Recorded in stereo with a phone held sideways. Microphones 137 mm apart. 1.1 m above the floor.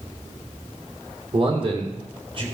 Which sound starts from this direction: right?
A man speaking, at 1.3 s.